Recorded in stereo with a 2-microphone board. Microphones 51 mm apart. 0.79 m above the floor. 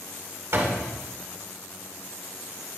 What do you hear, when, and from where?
0.5 s a door slam: 60° right (ahead or behind), 1.5 m